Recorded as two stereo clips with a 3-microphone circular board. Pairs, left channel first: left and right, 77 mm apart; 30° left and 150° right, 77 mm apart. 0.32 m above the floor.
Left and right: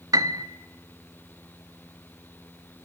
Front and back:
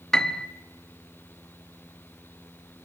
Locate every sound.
0.1 s a piano: 55° right, 0.8 m